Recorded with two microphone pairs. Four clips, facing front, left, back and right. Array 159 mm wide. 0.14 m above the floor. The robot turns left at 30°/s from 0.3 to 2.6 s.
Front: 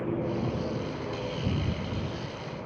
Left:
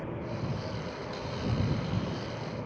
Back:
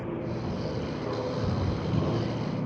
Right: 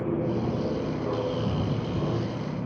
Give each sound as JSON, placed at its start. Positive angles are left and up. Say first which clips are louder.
{"t": 0.0, "sound": "an aircraft", "louder": "right 10 dB, front 3 dB", "azimuth_deg": -75}